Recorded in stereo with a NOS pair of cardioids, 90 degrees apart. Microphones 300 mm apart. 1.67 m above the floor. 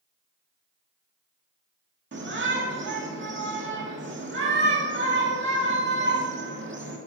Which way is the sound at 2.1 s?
40° right.